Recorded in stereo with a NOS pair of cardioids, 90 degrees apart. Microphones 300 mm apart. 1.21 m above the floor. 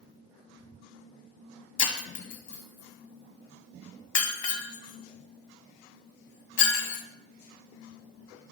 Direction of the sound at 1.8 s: 65° left.